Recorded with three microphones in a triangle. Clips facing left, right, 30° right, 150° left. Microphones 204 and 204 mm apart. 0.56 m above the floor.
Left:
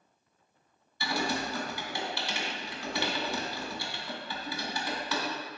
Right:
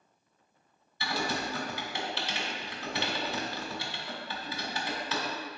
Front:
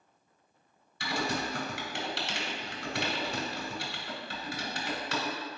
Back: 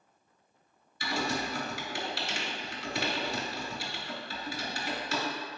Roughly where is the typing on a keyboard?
Ahead.